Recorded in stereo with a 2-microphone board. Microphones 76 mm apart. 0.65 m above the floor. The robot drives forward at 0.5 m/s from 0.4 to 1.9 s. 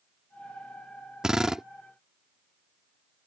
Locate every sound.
1.2 s a drill: 10° right (ahead or behind); by 1.6 s 5° right (ahead or behind)